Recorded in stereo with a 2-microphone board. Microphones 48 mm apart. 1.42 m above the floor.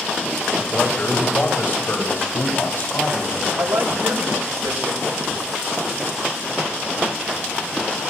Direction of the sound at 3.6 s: 80° right.